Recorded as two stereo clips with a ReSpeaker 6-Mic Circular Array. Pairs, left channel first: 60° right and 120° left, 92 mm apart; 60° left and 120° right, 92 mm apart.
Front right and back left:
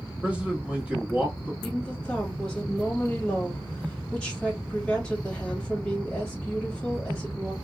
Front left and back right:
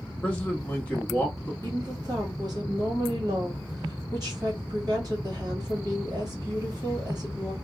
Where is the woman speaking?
135° right, 1.5 m.